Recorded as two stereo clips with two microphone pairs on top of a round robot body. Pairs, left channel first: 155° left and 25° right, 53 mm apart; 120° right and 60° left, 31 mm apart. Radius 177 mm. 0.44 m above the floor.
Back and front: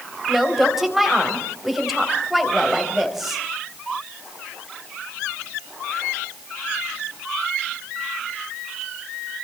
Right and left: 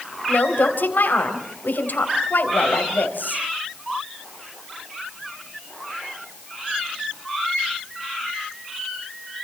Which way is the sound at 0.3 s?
105° right.